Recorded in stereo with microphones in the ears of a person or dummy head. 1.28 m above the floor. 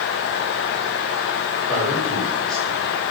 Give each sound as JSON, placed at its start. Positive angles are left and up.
{"t": 1.7, "sound": "a man speaking", "side_deg": 5, "distance_m": 6.5}